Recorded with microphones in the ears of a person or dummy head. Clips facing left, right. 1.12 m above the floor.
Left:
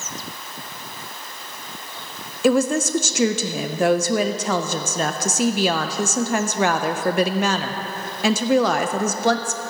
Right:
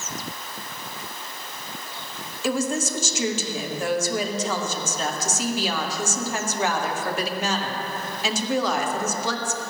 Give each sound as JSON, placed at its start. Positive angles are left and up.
{"t": 2.4, "sound": "a woman speaking", "side_deg": 50, "distance_m": 0.5}